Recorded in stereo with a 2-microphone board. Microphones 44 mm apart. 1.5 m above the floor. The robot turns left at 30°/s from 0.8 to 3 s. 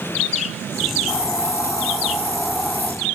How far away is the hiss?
About 5 m.